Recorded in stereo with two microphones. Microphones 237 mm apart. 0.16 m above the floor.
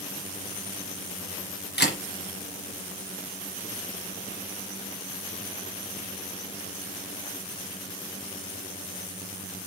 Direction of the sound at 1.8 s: 45° left (ahead or behind).